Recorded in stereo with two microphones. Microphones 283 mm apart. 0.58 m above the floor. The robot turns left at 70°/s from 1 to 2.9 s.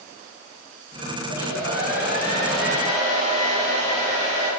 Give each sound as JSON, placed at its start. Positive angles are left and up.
{"t": 1.3, "sound": "a hair dryer", "azimuth_deg": 90, "distance_m": 8.5}